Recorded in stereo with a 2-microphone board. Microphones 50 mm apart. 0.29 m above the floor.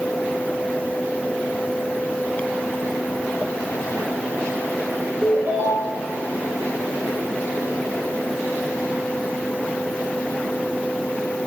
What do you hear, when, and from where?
5.2 s a ringtone: 45° right (ahead or behind), 3 m